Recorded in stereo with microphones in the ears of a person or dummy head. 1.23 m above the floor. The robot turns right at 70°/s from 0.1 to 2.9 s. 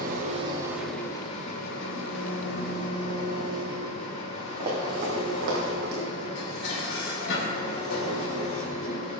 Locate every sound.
0.0 s an engine running: 60° right, 1.7 m; by 9.2 s 135° left, 1.7 m
4.6 s running footsteps: 20° right (ahead or behind), 3.5 m; by 6.2 s 55° right (ahead or behind), 2.5 m
6.3 s dishes clattering: 70° left (ahead or behind), 2.5 m